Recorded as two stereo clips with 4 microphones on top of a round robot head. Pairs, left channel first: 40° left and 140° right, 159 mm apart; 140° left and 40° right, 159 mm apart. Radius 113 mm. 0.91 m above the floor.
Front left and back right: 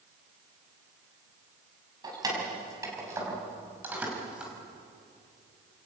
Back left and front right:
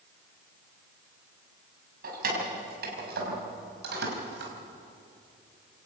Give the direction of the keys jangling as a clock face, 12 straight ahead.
2 o'clock.